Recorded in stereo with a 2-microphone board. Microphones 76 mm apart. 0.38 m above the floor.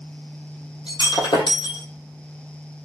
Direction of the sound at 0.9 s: 80° left.